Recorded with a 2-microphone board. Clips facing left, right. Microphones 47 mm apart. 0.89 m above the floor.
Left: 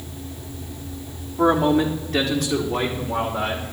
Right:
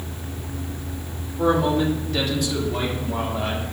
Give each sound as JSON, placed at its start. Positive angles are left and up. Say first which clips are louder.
{"t": 1.4, "sound": "a man speaking", "louder": "left 2 dB", "side_deg": 65, "distance_m": 2.5}